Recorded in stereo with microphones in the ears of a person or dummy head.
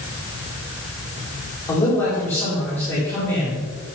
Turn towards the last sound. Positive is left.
turn(degrees=15)  # may be behind; listen again after turning